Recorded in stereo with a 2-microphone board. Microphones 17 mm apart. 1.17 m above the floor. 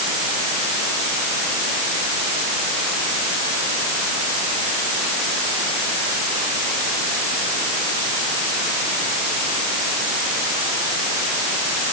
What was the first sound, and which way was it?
Only background noise.